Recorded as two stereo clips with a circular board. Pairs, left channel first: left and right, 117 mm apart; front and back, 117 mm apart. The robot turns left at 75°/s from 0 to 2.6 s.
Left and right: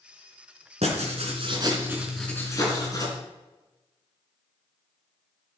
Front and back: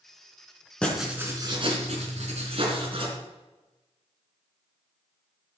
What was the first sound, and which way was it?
Writing, 80° right.